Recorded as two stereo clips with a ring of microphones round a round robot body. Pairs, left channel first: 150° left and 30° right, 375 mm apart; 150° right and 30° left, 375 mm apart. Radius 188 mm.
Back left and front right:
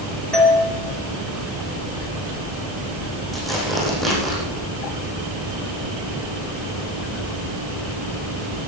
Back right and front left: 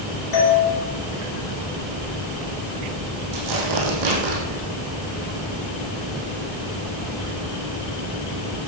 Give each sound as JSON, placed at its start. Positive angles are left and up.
{"t": 0.3, "sound": "a doorbell", "azimuth_deg": -120, "distance_m": 3.5}
{"t": 3.3, "sound": "tearing paper", "azimuth_deg": 60, "distance_m": 6.0}